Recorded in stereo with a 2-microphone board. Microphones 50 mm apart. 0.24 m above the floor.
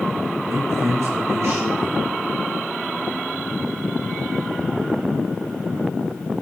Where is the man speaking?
70° right (ahead or behind), 3.5 m.